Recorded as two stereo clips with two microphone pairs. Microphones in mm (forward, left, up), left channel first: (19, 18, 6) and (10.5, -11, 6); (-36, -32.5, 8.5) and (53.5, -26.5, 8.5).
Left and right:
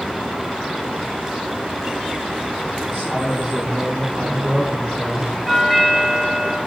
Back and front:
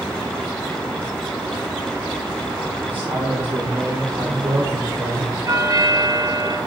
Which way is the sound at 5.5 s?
35° right.